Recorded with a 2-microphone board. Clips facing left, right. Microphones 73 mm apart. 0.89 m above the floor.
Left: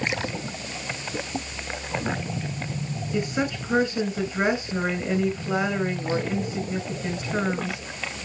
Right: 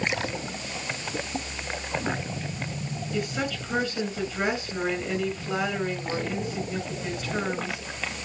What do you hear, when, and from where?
3.1 s a woman speaking: 15° left (ahead or behind), 4 m